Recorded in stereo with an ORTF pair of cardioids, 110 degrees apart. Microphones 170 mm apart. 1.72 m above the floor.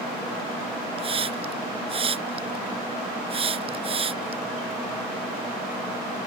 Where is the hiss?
35° right.